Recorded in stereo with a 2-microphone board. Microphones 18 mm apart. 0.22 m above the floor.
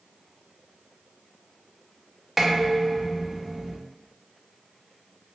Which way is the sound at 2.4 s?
10° right (ahead or behind).